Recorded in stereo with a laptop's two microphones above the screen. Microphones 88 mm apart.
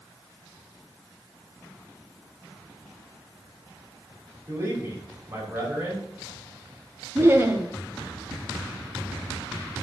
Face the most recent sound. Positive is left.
turn(degrees=-25)  # may be behind; listen again after turning